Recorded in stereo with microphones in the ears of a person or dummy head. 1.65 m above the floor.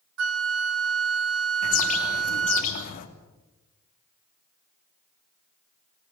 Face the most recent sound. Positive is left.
turn(degrees=45)  # may be behind; listen again after turning